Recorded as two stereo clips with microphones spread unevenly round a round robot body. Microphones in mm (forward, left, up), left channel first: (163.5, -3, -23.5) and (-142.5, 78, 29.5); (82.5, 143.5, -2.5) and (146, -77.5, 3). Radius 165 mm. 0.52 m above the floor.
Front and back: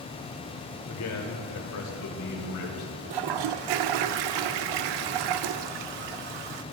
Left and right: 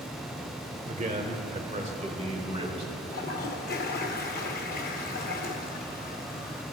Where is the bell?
I don't hear a bell.